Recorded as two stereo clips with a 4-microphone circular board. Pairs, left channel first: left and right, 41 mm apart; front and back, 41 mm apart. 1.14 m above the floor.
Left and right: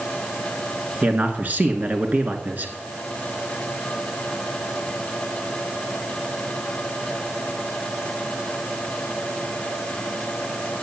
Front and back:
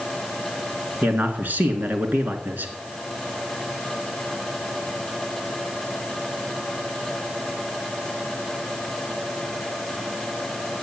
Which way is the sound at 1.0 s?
145° right.